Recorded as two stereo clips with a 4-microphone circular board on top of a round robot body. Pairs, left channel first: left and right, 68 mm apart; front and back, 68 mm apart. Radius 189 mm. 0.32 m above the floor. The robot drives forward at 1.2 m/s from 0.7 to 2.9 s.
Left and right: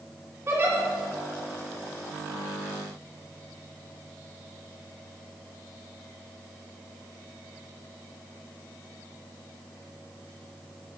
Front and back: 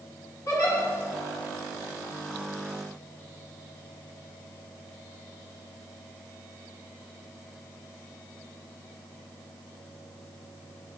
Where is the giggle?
40° right, 3 m.